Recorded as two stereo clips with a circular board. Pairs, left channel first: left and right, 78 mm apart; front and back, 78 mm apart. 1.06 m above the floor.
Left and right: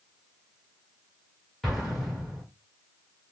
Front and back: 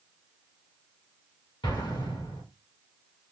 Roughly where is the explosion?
Ahead.